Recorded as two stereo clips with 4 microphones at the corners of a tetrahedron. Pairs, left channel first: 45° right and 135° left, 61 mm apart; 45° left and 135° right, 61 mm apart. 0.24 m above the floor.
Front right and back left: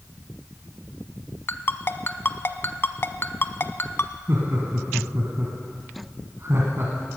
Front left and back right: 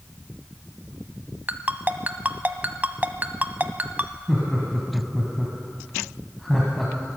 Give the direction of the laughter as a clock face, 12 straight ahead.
8 o'clock.